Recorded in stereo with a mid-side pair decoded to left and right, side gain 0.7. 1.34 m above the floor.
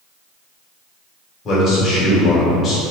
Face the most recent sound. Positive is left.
turn(degrees=35)